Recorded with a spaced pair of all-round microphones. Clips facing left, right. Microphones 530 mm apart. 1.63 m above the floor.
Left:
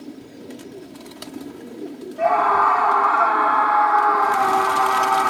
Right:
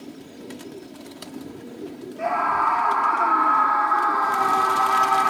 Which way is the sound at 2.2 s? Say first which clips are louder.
Left 7 dB; 80° left.